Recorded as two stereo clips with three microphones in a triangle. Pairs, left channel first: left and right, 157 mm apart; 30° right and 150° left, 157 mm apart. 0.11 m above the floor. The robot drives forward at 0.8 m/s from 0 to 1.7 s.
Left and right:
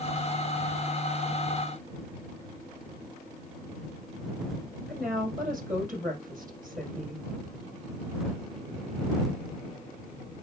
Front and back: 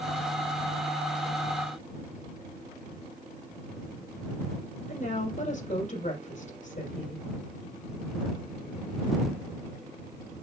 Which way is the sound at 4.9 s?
70° right.